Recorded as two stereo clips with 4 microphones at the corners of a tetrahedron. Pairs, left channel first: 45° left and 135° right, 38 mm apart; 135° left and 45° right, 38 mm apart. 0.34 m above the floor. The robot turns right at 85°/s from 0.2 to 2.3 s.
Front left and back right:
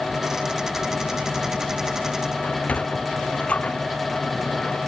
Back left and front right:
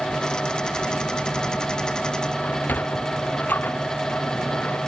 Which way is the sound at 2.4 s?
95° left.